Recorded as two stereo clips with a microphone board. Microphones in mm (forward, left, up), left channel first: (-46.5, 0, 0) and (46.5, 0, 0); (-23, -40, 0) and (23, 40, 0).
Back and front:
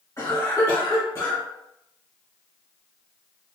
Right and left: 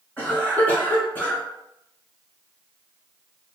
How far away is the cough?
About 1.6 m.